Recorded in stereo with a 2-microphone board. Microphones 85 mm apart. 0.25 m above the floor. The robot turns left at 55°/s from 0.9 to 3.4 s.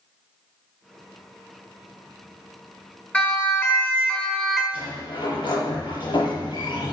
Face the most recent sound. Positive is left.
turn(degrees=65)  # may be behind; listen again after turning